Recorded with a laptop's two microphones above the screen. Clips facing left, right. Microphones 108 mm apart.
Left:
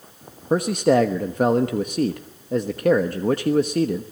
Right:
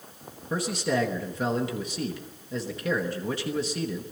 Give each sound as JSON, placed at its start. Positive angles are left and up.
{"t": 0.5, "sound": "a man speaking", "side_deg": 55, "distance_m": 1.1}